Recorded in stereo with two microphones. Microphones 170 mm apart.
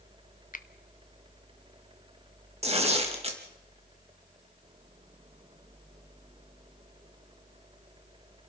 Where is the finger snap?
55° left (ahead or behind), 0.9 m.